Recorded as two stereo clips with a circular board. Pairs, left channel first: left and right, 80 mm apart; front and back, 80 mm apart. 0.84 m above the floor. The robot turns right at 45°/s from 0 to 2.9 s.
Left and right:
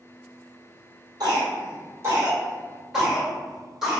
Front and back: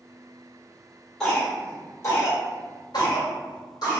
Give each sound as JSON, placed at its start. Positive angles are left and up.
{"t": 1.2, "sound": "a cough", "azimuth_deg": -85, "distance_m": 1.6}